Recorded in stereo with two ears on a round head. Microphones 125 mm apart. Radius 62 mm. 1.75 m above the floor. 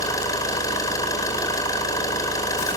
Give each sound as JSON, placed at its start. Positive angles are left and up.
{"t": 0.0, "sound": "an engine running", "side_deg": 25, "distance_m": 4.5}